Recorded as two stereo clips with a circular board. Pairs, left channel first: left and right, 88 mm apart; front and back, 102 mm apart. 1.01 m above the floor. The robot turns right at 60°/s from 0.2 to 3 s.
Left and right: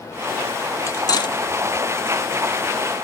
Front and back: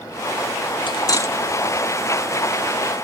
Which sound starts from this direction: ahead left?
Cutlery clinking, at 0.9 s.